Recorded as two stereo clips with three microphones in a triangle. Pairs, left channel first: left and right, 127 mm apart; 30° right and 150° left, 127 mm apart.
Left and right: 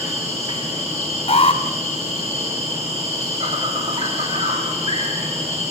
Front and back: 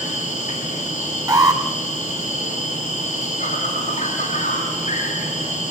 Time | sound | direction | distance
0.0 | an insect | 55° right | 9.5 m
1.3 | an alarm | 95° left | 2.0 m